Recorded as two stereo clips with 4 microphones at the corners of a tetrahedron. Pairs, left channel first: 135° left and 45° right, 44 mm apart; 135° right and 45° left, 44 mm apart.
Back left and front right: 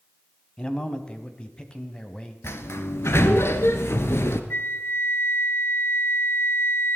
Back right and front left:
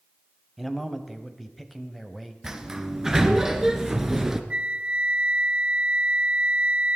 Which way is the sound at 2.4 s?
125° left.